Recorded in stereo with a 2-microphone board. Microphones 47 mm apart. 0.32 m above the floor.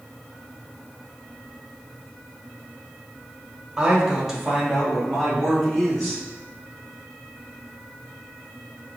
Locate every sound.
3.8 s a man speaking: 20° right (ahead or behind), 1.2 m; by 6.2 s 5° left (ahead or behind), 3 m